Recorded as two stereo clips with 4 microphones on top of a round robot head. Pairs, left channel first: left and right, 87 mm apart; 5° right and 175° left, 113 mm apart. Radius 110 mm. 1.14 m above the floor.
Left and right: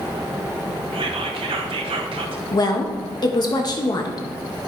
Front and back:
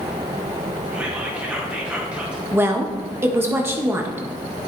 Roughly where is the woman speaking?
Left.